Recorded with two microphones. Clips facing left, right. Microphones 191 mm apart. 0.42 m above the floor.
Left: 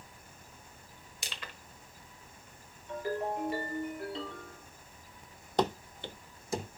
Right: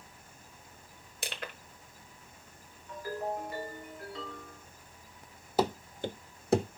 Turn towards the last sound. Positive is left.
turn(degrees=-65)  # may be behind; listen again after turning